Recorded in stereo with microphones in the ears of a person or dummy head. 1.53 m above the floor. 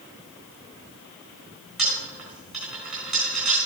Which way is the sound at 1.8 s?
Centre (ahead or behind).